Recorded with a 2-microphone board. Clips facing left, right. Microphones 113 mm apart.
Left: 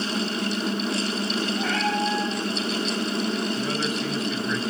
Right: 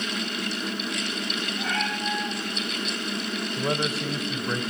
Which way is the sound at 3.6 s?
30° right (ahead or behind).